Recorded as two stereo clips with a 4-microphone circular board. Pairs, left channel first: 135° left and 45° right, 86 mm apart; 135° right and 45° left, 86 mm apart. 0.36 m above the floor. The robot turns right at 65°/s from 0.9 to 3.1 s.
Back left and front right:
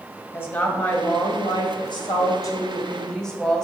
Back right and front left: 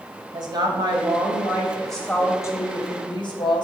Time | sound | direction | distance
0.3 | a woman speaking | 75° left | 1.8 m